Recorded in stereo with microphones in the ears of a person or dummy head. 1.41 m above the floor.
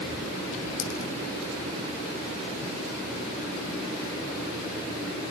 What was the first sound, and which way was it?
A dropped coin, 70° left (ahead or behind).